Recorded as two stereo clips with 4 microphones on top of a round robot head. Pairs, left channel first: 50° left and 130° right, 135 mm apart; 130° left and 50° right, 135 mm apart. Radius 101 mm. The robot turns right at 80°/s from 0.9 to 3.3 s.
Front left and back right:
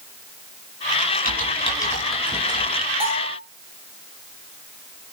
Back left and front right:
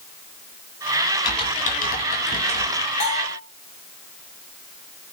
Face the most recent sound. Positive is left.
turn(degrees=-155)